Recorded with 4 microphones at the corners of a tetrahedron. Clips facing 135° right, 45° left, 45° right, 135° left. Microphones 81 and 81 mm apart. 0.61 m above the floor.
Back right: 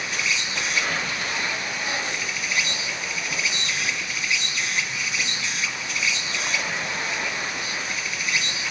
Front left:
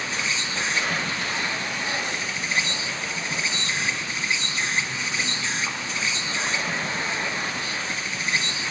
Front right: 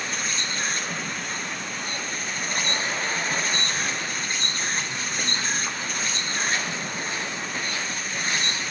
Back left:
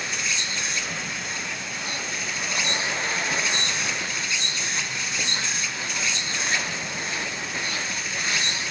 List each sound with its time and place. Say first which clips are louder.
0.0 s an insect: back right 1 dB, even; 10° right, 1.2 m